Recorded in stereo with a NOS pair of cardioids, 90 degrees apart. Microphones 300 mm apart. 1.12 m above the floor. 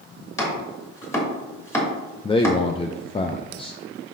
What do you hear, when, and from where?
0.4 s chopping: 10° left, 3 m
2.2 s a man speaking: 20° left, 0.5 m